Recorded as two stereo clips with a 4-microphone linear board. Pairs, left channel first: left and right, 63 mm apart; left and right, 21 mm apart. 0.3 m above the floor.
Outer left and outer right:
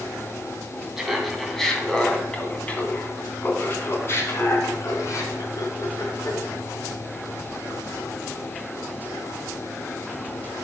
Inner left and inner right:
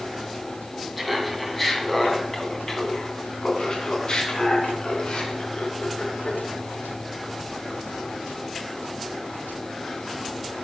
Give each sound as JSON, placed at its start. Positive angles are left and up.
{"t": 1.0, "sound": "laughter", "side_deg": -5, "distance_m": 2.0}